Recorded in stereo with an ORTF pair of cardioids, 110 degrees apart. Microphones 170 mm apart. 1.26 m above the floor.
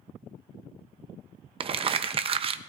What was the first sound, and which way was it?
Crumpling, 35° right.